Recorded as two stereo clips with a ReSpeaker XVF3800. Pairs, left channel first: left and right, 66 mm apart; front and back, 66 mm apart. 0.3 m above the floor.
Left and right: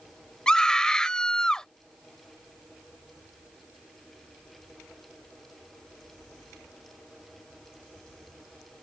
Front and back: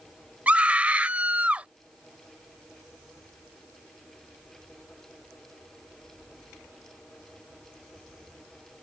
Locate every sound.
0.5 s a scream: 150° left